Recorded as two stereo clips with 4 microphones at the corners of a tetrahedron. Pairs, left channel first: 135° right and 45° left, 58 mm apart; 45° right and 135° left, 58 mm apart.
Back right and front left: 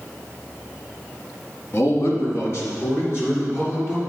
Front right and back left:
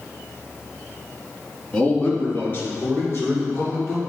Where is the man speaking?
115° right, 1.6 m; by 4.0 s 90° right, 4 m.